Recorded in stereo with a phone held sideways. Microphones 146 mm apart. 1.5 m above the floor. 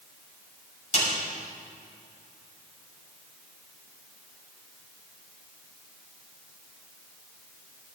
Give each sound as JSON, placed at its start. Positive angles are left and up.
{"t": 0.9, "sound": "a snare drum", "side_deg": 55, "distance_m": 6.0}